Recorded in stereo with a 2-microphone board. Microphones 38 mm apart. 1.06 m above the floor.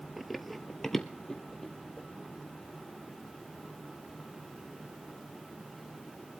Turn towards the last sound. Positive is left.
turn(degrees=20)  # may be behind; listen again after turning